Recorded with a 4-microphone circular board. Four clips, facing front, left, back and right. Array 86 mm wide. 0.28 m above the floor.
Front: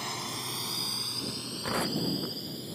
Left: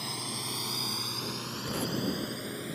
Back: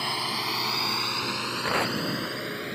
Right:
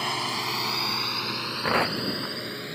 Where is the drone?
115° right; by 2.8 s 165° right.